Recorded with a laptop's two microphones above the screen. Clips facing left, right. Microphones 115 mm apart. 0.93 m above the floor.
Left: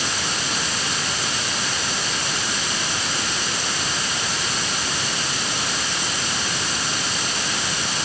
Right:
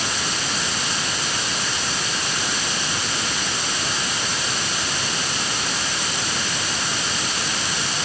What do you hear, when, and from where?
Only background noise.